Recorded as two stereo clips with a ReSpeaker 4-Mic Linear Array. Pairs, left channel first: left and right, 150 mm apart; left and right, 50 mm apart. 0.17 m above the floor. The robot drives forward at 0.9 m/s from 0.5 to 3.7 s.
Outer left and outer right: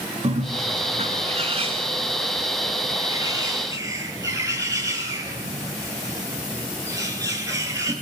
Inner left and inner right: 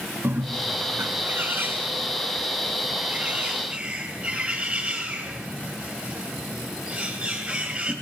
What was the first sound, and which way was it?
A bird, 45° right (ahead or behind).